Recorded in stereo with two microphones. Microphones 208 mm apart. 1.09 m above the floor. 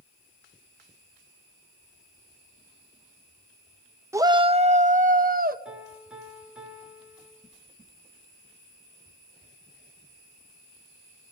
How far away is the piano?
About 6.5 m.